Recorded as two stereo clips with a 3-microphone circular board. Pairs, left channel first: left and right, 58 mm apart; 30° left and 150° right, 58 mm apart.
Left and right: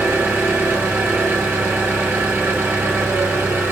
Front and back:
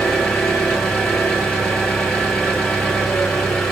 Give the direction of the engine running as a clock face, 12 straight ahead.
2 o'clock.